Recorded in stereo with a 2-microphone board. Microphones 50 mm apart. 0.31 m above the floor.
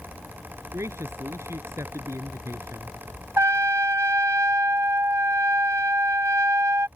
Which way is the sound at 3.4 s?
65° right (ahead or behind).